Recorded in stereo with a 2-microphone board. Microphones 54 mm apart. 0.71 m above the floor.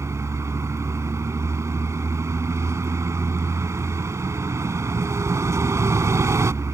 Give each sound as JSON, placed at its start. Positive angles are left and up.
{"t": 0.0, "sound": "a vehicle", "side_deg": -70}